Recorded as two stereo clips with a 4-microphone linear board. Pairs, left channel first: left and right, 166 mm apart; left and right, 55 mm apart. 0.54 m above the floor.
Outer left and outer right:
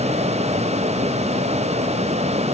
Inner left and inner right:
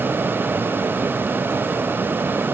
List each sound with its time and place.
Only background noise.